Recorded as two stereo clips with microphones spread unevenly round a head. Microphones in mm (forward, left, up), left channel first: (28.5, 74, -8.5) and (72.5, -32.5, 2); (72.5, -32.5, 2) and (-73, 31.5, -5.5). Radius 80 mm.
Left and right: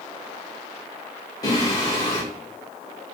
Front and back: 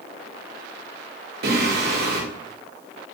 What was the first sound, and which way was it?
Singing, straight behind.